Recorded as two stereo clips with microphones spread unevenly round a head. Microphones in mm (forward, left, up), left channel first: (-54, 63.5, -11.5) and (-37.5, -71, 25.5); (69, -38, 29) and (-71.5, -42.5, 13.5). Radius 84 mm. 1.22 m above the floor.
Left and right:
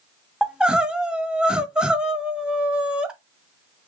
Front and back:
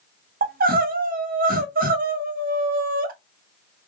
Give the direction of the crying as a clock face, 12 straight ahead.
5 o'clock.